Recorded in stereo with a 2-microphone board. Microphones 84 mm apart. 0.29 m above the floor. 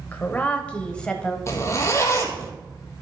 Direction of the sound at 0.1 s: 20° left (ahead or behind).